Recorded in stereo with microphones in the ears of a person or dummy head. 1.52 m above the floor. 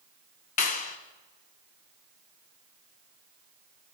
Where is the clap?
45° left (ahead or behind), 1.6 m.